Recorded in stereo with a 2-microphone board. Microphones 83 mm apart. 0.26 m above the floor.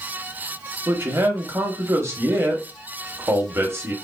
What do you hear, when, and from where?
0.9 s a man speaking: 30° right (ahead or behind), 1.0 m